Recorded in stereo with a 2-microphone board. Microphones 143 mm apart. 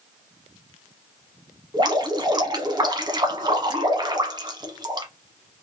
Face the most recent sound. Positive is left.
turn(degrees=-30)  # may be behind; listen again after turning